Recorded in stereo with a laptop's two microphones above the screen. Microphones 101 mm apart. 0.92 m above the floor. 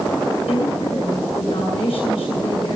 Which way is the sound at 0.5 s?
75° left (ahead or behind).